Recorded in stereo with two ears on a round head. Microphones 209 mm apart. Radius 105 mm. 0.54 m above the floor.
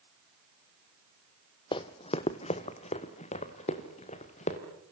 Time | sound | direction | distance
1.7 | running footsteps | 20° left (ahead or behind) | 0.8 m